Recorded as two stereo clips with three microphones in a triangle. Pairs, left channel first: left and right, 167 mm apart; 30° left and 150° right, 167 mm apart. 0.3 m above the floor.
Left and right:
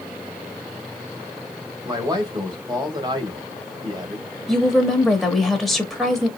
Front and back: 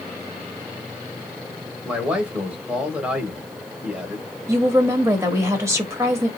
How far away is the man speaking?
About 1.5 m.